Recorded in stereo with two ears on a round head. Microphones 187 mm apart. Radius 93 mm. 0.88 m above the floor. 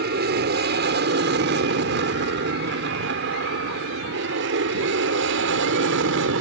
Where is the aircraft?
50° right (ahead or behind); by 6.4 s 65° right (ahead or behind).